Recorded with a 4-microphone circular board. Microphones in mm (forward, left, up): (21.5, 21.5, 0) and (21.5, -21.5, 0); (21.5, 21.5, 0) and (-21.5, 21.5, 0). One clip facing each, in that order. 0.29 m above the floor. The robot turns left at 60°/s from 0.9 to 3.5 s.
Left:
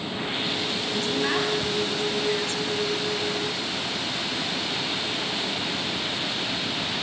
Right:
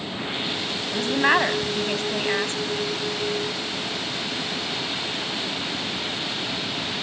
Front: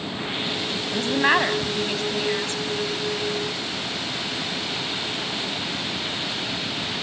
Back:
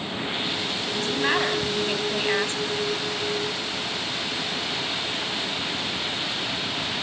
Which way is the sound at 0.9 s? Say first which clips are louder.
Right 7 dB, front 5 dB; 35° right.